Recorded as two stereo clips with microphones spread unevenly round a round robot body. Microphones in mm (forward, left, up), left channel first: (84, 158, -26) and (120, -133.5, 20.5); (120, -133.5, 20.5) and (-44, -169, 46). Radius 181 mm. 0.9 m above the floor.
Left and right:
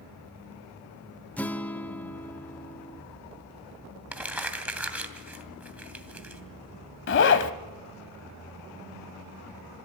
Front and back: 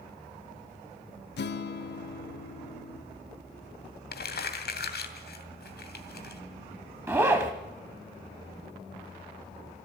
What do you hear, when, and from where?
1.4 s a guitar: 10° left, 0.8 m
4.1 s crumpling: straight ahead, 2.5 m
7.1 s a zipper: 135° left, 0.8 m